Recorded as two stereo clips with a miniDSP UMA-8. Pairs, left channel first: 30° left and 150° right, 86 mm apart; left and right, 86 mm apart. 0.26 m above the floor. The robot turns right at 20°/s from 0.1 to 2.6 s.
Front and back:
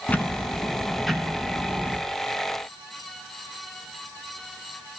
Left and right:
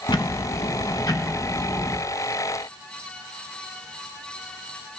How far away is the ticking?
About 0.8 m.